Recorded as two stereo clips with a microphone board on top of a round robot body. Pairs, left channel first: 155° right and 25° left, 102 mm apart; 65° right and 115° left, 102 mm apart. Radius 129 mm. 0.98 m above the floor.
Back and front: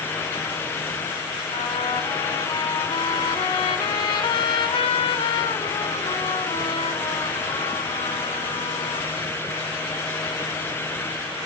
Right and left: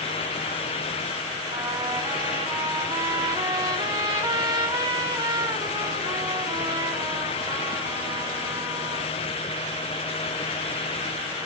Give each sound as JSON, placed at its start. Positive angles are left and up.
{"t": 1.5, "sound": "a trumpet", "azimuth_deg": 160, "distance_m": 1.8}